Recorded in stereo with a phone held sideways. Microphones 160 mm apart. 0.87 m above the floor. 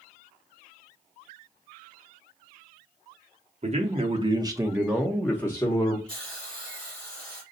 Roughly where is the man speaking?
Right.